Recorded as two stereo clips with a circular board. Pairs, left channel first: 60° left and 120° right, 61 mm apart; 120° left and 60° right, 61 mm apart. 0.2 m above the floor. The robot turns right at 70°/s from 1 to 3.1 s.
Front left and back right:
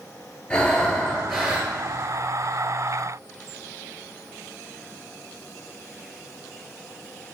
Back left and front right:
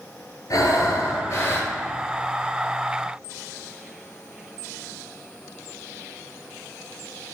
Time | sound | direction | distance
0.5 | breathing | 130° left | 1.0 m